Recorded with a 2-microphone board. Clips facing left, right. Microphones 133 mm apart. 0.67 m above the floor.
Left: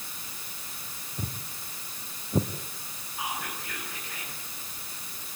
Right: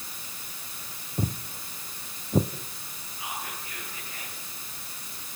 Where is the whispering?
80° left, 9 m.